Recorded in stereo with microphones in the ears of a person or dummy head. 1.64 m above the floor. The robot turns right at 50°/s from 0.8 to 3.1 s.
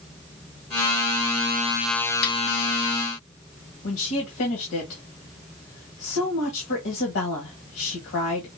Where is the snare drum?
55° left (ahead or behind), 2.5 m; by 2.4 s 65° left (ahead or behind), 2.5 m.